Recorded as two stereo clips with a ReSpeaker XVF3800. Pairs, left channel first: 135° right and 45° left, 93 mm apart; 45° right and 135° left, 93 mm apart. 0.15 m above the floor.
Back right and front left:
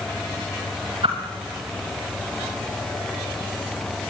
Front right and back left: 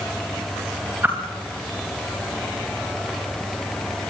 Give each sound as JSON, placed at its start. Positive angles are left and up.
{"t": 1.0, "sound": "a whoosh", "azimuth_deg": 65, "distance_m": 6.5}